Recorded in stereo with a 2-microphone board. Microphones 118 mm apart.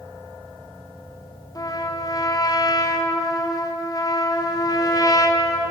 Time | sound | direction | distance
1.6 | a trumpet | 30° left (ahead or behind) | 0.5 m